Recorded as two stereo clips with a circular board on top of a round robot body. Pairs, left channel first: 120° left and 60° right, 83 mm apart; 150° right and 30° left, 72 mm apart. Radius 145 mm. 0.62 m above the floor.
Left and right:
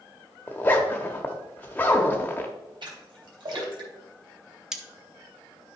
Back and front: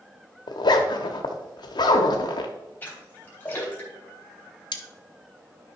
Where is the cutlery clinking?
145° right, 0.9 m.